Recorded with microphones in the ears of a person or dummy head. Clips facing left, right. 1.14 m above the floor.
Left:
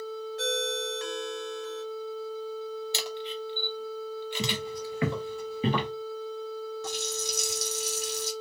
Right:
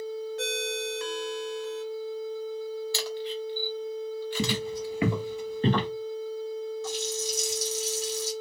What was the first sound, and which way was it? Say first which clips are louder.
A ringtone: left 1 dB; 60° right (ahead or behind).